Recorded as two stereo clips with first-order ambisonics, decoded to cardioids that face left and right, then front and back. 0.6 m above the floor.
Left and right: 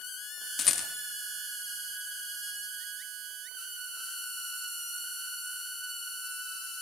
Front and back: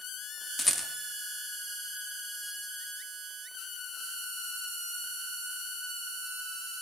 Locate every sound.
0.6 s a rattle: 70° left, 1.4 m